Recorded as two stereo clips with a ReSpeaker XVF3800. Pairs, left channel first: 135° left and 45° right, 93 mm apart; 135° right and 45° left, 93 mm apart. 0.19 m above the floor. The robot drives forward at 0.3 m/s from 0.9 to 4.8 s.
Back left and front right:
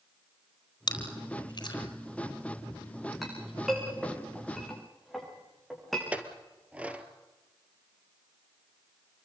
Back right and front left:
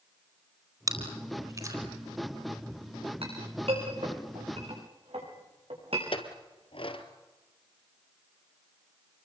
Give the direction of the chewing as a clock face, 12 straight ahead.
9 o'clock.